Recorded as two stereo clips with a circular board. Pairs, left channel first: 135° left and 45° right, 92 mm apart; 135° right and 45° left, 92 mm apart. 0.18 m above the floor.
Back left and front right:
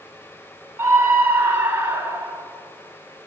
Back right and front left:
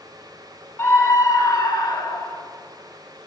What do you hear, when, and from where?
0.8 s a scream: 95° right, 1.3 m; by 2.4 s 115° right, 2 m